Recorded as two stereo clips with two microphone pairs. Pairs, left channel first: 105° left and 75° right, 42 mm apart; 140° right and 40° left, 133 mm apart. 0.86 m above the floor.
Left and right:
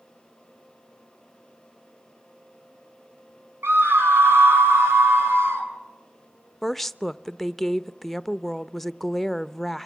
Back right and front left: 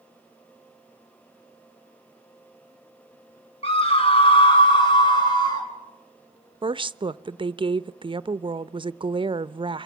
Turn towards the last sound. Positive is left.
turn(degrees=20)